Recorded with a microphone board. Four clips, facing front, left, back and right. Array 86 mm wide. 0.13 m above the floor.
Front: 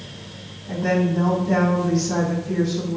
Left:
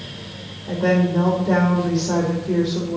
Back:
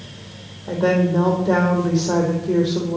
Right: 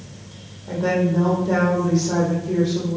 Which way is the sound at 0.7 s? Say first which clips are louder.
Left 2 dB, back 3 dB; 165° left.